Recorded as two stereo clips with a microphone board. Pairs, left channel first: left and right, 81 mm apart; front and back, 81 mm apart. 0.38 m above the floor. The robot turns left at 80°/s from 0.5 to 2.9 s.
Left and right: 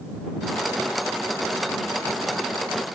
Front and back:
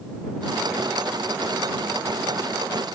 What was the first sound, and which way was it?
Only background noise.